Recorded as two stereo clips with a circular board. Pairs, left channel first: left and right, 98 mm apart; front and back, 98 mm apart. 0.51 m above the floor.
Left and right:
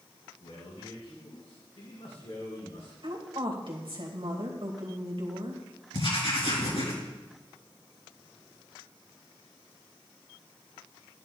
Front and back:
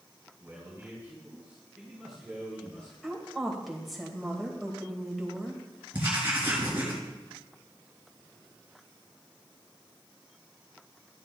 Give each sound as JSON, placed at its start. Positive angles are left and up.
{"t": 0.4, "sound": "a man speaking", "azimuth_deg": 120, "distance_m": 5.0}
{"t": 3.0, "sound": "a woman speaking", "azimuth_deg": -90, "distance_m": 3.0}
{"t": 5.9, "sound": "writing", "azimuth_deg": 110, "distance_m": 4.0}